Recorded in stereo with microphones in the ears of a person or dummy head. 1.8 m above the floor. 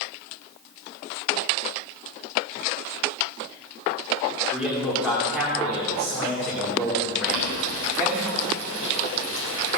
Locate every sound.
4.5 s a man speaking: 5° right (ahead or behind), 2.5 m
7.3 s boiling: 70° right (ahead or behind), 3.5 m